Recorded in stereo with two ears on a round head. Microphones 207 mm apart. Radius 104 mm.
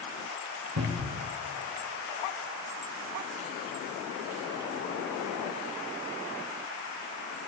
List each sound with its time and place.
0.8 s a cupboard door: 75° right (ahead or behind), 3 m